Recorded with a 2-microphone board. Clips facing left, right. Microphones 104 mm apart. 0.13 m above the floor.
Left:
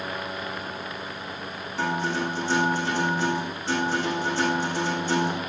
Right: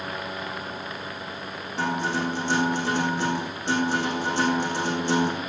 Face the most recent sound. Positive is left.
turn(degrees=-75)  # may be behind; listen again after turning